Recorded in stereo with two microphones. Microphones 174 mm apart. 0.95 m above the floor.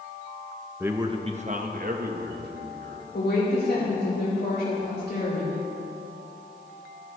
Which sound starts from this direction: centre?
A man speaking, at 0.8 s.